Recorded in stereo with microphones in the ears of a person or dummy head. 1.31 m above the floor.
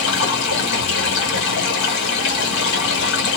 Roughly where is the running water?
Left.